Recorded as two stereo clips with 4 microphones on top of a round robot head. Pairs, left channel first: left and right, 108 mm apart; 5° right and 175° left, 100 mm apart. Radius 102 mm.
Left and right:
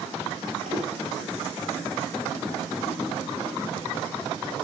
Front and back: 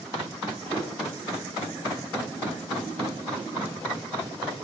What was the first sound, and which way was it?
Footsteps, 85° right.